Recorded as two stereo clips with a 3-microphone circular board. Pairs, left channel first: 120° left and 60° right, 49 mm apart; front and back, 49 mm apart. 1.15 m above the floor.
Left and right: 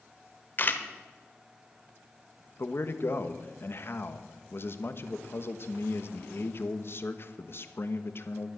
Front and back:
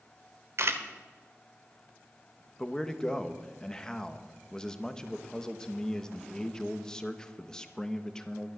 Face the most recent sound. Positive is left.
turn(degrees=75)